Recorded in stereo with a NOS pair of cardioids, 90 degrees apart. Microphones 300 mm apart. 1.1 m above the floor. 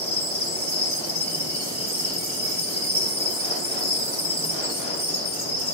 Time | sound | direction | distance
0.0 | an insect | 20° left | 3 m